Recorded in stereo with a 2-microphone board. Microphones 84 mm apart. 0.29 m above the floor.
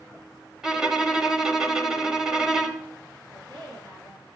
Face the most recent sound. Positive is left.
turn(degrees=-70)  # may be behind; listen again after turning